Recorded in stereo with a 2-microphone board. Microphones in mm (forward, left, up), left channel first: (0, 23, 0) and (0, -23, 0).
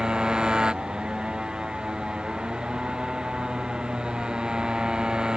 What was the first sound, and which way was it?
A motorcycle, 15° right (ahead or behind).